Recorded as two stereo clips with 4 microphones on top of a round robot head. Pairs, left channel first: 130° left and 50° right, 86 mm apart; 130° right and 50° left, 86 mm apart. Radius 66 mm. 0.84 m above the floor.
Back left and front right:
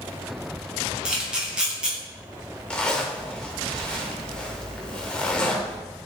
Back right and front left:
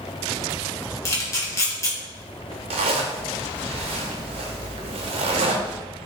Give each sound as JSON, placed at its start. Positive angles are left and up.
{"t": 1.1, "sound": "a camera shutter", "azimuth_deg": -125, "distance_m": 1.2}
{"t": 2.7, "sound": "a zipper", "azimuth_deg": 50, "distance_m": 0.6}